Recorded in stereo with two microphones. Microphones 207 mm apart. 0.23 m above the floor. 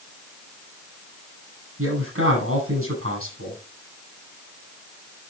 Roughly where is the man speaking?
Right.